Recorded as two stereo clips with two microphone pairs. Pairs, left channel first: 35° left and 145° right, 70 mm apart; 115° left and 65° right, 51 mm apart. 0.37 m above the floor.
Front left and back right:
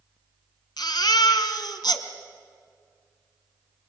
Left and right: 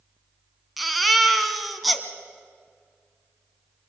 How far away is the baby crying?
About 1.5 m.